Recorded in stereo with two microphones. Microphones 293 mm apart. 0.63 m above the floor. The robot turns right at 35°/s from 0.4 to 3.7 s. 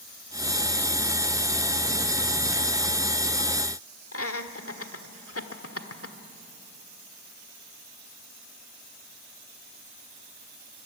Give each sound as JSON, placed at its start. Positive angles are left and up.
{"t": 4.1, "sound": "laughter", "side_deg": 50, "distance_m": 1.6}